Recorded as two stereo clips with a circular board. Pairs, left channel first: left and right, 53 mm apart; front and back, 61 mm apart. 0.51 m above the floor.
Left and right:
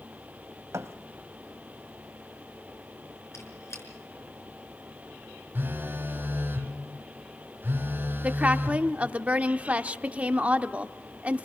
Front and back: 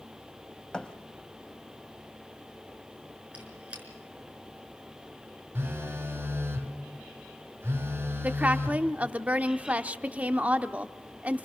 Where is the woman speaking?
135° right, 0.8 m.